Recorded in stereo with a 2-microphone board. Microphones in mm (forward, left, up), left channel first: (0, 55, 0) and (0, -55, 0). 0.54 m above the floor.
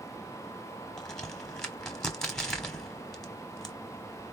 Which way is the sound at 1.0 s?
5° left (ahead or behind).